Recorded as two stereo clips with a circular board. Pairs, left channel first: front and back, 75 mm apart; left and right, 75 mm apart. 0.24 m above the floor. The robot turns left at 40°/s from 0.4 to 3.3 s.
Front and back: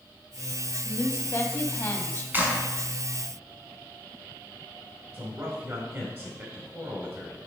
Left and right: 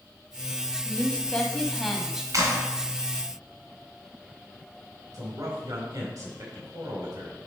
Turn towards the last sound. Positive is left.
turn(degrees=-135)